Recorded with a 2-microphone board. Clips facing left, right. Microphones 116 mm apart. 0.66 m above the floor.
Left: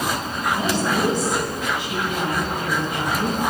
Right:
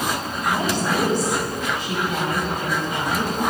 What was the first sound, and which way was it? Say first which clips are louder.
A woman speaking: even; 45° right (ahead or behind).